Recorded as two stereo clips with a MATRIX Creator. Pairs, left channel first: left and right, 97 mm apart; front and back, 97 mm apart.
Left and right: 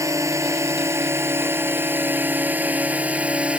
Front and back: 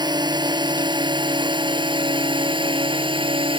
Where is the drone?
145° right; by 3.6 s 165° right.